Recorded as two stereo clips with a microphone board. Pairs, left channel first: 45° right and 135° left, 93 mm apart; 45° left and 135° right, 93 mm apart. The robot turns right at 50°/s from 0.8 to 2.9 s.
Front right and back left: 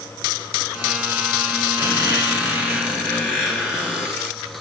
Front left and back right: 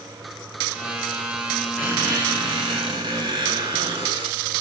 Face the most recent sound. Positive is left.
turn(degrees=-145)